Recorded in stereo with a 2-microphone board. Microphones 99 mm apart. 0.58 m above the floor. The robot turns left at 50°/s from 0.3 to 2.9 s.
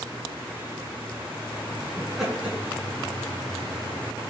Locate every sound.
2.0 s laughter: 10° left (ahead or behind), 5.5 m; by 4.3 s 40° right (ahead or behind), 5.5 m